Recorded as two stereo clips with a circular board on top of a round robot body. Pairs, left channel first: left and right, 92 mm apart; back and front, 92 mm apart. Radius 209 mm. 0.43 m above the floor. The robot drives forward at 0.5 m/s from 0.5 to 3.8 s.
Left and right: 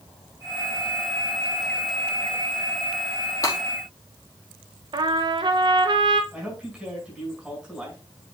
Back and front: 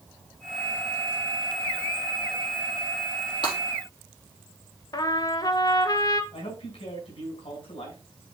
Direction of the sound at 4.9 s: 130° right.